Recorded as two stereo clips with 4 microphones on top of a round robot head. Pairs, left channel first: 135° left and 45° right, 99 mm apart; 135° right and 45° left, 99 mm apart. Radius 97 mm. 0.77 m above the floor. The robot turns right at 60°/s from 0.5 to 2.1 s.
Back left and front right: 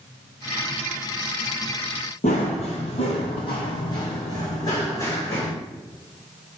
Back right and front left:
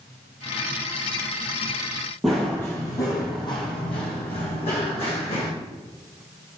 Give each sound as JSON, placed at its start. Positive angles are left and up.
{"t": 2.2, "sound": "running footsteps", "azimuth_deg": 135, "distance_m": 1.2}